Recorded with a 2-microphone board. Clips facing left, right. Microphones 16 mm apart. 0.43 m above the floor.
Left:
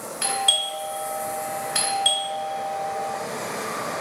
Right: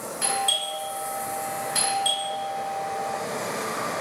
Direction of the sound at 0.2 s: 25° left (ahead or behind).